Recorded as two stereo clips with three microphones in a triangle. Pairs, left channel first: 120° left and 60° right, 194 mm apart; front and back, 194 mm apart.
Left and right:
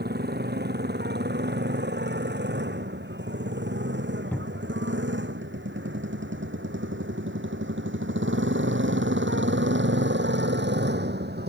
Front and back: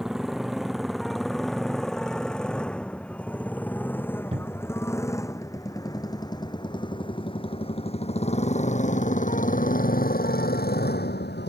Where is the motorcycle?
95° right; by 11.5 s 30° right.